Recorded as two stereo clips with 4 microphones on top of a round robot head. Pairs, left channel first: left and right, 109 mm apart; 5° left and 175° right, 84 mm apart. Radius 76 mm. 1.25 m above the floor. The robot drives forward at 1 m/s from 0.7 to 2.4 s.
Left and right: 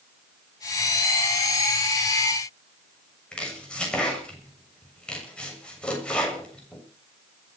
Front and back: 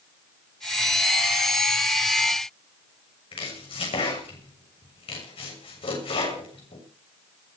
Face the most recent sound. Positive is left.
turn(degrees=10)